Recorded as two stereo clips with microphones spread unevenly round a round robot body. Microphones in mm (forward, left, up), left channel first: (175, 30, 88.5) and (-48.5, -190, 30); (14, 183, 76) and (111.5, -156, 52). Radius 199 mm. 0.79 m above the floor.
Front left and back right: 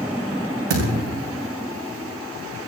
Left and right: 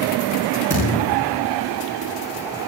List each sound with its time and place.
0.7 s a thud: 155° right, 8 m